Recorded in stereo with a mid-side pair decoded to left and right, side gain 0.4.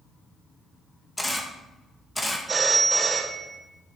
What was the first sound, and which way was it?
A camera shutter, 10° left.